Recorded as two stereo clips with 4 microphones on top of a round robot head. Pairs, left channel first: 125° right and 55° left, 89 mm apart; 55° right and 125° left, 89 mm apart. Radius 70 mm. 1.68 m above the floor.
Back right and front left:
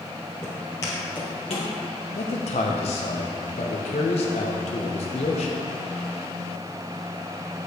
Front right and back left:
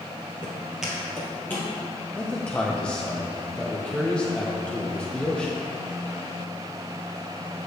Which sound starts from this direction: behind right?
A man speaking, at 2.1 s.